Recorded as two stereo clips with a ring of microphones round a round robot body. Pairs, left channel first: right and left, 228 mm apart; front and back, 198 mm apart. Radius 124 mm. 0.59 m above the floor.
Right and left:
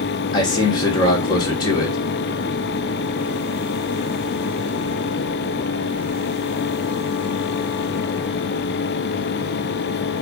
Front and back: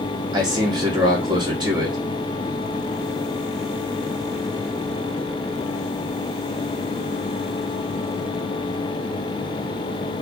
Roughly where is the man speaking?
Behind right.